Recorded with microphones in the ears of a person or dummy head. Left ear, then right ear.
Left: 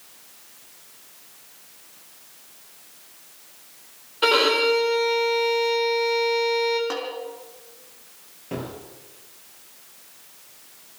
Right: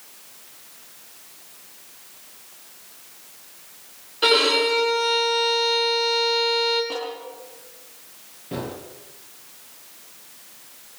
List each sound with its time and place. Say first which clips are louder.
4.2 s a violin: right 1 dB; 35° left (ahead or behind), 5 m
6.9 s a snare drum: even; 70° left (ahead or behind), 6 m
8.5 s a gunshot: right 2 dB; 45° left (ahead or behind), 6 m